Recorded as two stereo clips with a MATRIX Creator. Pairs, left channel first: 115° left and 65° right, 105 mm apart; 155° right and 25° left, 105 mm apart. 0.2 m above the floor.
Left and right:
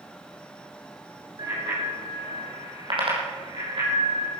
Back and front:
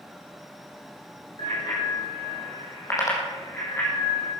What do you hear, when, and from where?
1.4 s a bicycle bell: 115° right, 5 m; by 4.3 s 85° right, 6 m